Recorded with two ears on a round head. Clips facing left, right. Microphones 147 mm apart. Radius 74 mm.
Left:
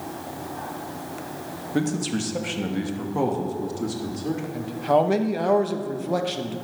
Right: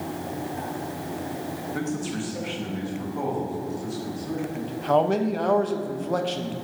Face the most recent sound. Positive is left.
turn(degrees=10)  # may be behind; listen again after turning